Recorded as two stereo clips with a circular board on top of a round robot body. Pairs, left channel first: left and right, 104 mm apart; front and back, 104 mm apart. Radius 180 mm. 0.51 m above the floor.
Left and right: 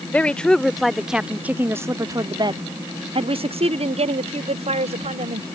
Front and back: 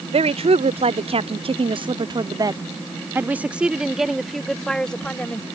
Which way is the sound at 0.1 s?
165° left.